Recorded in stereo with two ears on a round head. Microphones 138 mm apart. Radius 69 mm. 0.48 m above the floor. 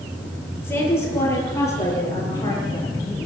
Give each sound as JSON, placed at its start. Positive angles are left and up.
{"t": 0.6, "sound": "a woman speaking", "side_deg": 15, "distance_m": 9.0}